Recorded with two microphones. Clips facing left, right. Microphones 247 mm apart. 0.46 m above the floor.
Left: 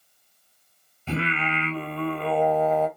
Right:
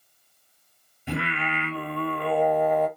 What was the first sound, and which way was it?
Singing, 15° right (ahead or behind).